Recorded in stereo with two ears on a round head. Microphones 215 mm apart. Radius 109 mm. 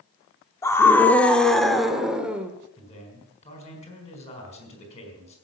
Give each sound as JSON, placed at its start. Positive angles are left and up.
{"t": 0.6, "sound": "a scream", "side_deg": 15, "distance_m": 1.1}
{"t": 2.8, "sound": "a man speaking", "side_deg": 30, "distance_m": 4.5}